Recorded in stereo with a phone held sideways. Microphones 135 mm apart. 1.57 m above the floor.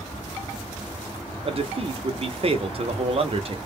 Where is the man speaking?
45° right (ahead or behind), 0.8 m.